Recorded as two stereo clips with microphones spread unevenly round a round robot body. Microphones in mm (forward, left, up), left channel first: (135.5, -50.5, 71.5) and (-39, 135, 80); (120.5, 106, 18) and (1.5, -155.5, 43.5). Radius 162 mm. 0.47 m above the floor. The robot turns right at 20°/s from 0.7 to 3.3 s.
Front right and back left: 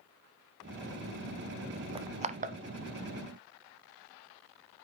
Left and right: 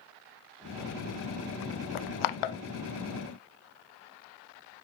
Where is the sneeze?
I don't hear a sneeze.